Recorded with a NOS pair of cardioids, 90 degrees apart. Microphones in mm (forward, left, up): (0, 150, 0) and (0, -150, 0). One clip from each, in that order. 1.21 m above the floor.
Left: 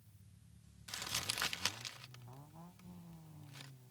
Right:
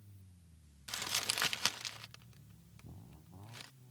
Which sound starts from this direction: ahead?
Crumpling, at 0.9 s.